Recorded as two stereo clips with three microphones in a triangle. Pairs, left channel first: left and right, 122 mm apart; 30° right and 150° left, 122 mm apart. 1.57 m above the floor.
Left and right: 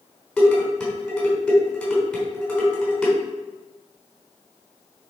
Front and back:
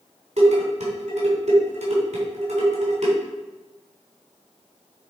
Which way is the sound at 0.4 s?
175° left.